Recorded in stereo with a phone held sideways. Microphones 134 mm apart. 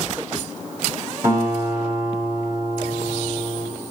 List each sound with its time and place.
1.2 s a guitar: 20° right (ahead or behind), 7 m